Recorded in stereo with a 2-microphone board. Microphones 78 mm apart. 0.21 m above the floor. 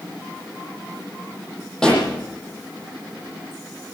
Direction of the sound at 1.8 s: 10° left (ahead or behind).